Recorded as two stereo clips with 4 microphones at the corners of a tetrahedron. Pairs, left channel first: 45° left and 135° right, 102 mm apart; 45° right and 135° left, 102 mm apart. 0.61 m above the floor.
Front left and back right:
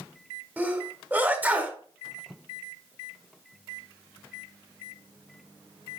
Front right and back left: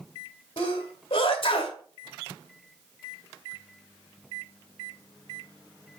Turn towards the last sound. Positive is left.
turn(degrees=-65)